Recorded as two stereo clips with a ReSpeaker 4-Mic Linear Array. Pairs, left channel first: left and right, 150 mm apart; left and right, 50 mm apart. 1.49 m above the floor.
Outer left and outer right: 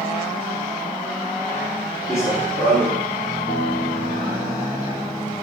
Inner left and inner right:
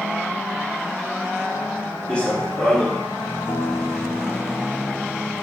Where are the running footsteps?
20° left (ahead or behind), 5 m.